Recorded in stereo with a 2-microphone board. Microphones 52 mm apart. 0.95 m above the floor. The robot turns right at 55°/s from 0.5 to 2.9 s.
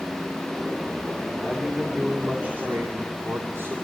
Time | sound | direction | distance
1.4 | a man speaking | 155° left | 2.5 m